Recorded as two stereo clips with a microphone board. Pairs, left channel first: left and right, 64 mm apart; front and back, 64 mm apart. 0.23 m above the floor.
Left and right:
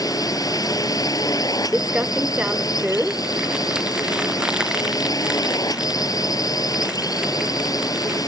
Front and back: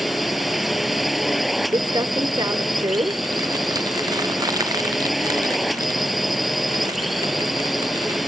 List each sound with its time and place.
0.0 s a drone: 90° left
1.7 s crumpling: 165° right